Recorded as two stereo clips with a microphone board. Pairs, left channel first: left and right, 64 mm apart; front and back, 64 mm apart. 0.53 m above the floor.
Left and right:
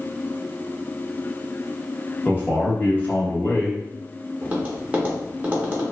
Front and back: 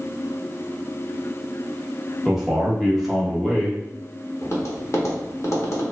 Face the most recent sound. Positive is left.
turn(degrees=-30)